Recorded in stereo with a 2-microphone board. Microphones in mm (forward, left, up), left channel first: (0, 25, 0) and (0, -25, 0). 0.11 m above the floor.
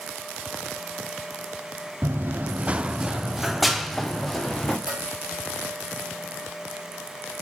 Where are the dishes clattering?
20° right (ahead or behind), 6 m.